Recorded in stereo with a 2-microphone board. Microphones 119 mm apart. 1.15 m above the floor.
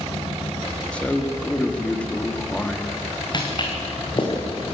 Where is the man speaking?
10° left (ahead or behind), 2 m.